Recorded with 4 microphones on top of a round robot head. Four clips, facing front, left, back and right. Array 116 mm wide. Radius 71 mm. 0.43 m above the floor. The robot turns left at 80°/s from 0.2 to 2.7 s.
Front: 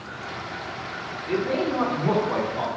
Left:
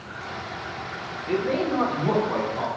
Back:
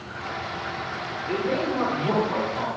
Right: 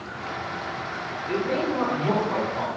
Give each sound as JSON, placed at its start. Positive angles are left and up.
{"t": 1.3, "sound": "a man speaking", "azimuth_deg": 100, "distance_m": 1.1}